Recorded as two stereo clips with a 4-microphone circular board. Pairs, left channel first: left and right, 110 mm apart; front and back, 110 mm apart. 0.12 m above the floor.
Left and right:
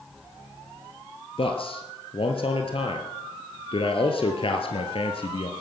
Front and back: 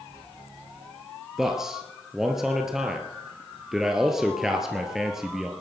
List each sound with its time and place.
1.4 s a man speaking: 95° left, 2 m